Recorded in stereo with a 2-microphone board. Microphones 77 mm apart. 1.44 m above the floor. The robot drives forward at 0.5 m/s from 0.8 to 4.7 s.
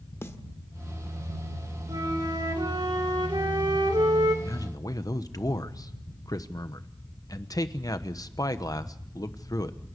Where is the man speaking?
50° left (ahead or behind), 1.2 m.